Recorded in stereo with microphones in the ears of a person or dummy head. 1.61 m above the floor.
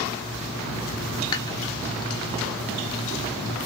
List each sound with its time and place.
1.3 s dishes clattering: 20° left (ahead or behind), 1.2 m